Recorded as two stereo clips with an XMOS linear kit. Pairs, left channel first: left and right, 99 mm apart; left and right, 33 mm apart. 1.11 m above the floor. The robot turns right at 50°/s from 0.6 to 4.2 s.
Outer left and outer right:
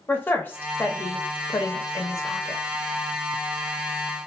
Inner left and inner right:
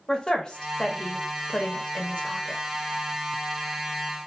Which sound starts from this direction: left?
A woman speaking, at 0.1 s.